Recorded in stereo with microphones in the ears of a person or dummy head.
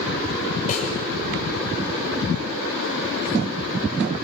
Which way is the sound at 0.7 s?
45° left (ahead or behind).